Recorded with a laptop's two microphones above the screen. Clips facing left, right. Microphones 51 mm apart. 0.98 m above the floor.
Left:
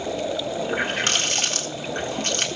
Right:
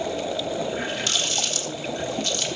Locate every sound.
0.6 s a running tap: 45° left (ahead or behind), 1.6 m